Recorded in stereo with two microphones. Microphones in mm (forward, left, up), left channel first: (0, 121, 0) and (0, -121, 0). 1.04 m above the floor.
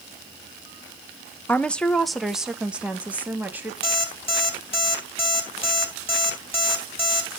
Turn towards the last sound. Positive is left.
turn(degrees=25)  # may be behind; listen again after turning